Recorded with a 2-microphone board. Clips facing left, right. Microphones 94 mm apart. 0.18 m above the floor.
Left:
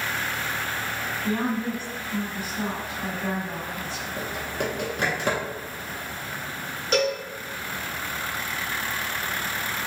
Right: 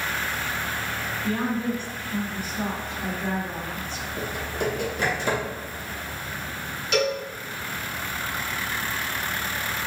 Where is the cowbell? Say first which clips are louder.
Even; 40° left (ahead or behind), 1.2 m.